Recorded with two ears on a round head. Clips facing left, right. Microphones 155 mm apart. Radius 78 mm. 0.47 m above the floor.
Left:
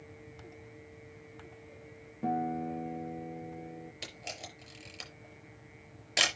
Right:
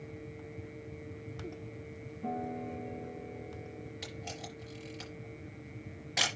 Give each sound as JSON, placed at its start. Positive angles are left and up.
{"t": 2.2, "sound": "a guitar", "side_deg": 75, "distance_m": 1.5}
{"t": 4.0, "sound": "a camera shutter", "side_deg": 40, "distance_m": 5.0}